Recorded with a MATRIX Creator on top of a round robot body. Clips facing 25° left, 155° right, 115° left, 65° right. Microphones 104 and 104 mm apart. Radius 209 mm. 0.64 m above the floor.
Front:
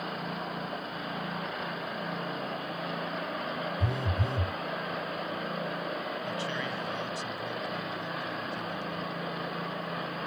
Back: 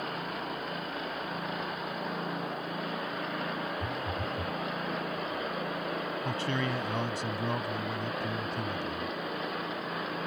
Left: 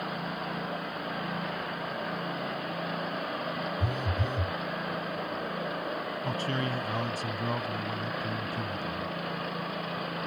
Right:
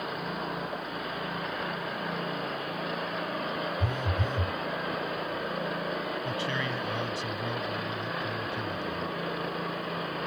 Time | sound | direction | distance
3.8 | a phone buzzing | 35° left | ?
6.2 | a man speaking | 165° left | ?